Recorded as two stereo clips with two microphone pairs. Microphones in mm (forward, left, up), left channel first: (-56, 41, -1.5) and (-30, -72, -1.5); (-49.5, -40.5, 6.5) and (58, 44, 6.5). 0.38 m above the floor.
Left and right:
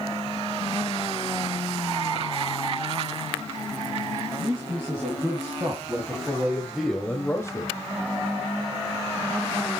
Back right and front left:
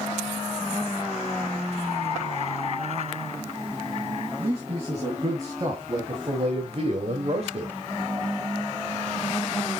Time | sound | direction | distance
4.4 | a man speaking | 30° right | 3 m